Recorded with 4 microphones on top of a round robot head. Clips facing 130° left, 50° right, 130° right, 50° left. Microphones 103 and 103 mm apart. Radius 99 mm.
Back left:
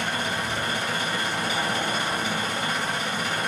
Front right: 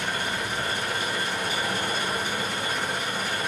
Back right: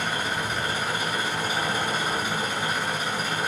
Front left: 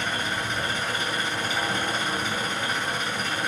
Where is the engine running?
145° left, 2.5 m.